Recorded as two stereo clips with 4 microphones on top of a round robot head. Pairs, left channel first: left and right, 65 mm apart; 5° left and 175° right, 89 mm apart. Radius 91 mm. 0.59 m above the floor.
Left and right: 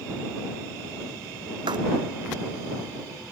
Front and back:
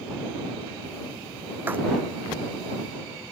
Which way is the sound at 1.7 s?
105° right.